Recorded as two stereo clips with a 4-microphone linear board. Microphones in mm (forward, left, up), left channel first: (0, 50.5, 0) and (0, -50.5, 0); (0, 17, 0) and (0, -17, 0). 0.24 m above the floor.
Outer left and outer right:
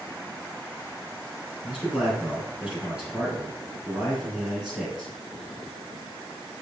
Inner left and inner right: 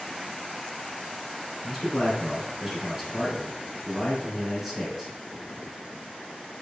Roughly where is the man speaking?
Centre.